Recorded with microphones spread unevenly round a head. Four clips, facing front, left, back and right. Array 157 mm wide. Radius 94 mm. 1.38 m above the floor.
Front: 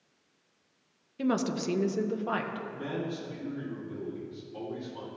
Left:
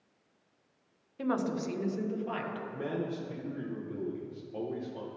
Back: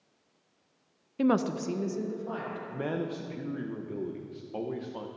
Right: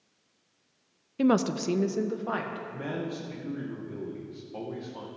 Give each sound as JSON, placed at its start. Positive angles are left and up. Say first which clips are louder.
{"t": 1.2, "sound": "a woman speaking", "louder": "right 7 dB, back 3 dB", "azimuth_deg": -105, "distance_m": 0.5}
{"t": 2.7, "sound": "a man speaking", "louder": "left 1 dB, back 2 dB", "azimuth_deg": 170, "distance_m": 0.8}